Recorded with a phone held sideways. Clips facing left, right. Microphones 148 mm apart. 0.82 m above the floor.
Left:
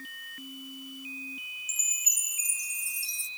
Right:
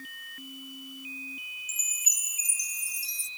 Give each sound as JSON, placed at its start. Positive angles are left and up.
{"t": 1.7, "sound": "a chime", "side_deg": 25}